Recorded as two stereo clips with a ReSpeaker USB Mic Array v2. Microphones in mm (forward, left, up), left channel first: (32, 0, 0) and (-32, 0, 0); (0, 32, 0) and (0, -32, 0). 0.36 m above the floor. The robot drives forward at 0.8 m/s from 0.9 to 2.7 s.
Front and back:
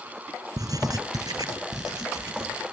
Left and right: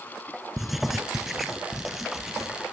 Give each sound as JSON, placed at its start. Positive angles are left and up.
{"t": 0.6, "sound": "writing", "azimuth_deg": -175, "distance_m": 0.9}